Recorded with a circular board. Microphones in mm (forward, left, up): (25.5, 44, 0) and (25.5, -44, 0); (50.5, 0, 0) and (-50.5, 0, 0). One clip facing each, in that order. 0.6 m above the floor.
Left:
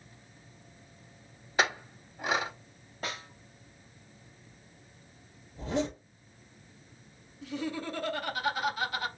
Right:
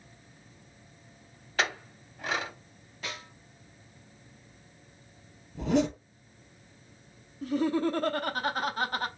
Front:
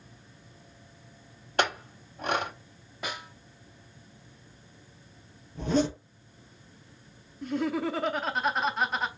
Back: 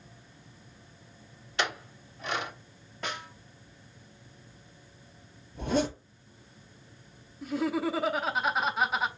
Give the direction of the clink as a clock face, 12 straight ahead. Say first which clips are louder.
Left 2 dB, front 4 dB; 11 o'clock.